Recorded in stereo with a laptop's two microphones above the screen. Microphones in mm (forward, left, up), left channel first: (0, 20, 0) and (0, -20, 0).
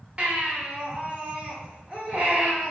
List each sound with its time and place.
0.2 s a baby crying: 30° right (ahead or behind), 1.0 m